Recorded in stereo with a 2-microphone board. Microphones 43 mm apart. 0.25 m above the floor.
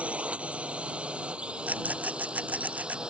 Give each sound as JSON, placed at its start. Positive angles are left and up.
{"t": 0.0, "sound": "a drone", "side_deg": -30}
{"t": 1.7, "sound": "a rattle", "side_deg": -40}